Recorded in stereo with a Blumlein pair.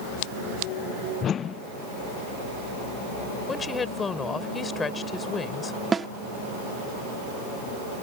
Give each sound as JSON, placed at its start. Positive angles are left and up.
{"t": 1.2, "sound": "a whoosh", "azimuth_deg": 25}
{"t": 3.5, "sound": "a woman speaking", "azimuth_deg": 15}
{"t": 5.9, "sound": "a snare drum", "azimuth_deg": -15}